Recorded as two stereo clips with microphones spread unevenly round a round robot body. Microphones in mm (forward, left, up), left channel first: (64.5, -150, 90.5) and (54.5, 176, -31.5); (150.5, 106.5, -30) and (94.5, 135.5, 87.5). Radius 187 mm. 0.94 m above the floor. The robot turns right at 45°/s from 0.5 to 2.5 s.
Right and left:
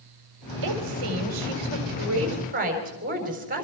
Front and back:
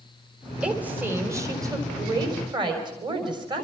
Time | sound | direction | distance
0.6 | a woman speaking | 75° left | 4 m